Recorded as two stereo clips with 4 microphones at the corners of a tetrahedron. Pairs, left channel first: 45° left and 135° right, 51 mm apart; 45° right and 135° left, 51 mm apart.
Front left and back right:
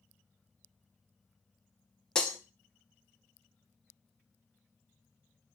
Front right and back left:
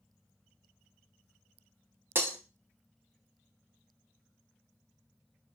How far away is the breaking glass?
About 0.7 m.